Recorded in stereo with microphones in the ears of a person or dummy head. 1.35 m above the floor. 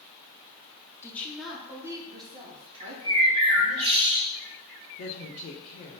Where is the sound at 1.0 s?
15° left (ahead or behind), 0.8 m; by 3.8 s 35° right (ahead or behind), 1.9 m.